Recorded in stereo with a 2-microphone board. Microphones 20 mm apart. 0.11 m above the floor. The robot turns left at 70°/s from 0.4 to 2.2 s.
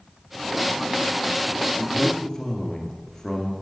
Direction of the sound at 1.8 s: 65° left.